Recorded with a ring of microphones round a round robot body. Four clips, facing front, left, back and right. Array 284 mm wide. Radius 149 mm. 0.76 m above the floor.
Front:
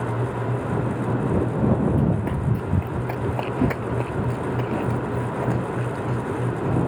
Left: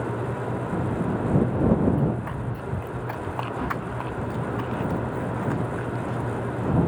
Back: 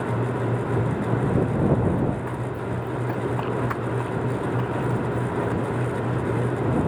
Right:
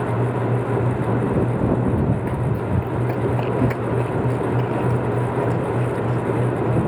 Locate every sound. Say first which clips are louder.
1.9 s running footsteps: right 4 dB, front 2 dB; 40° right; by 6.7 s 50° right